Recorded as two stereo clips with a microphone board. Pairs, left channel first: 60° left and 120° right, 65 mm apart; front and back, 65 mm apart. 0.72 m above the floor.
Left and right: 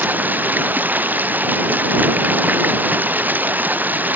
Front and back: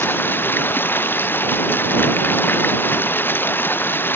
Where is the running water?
55° right.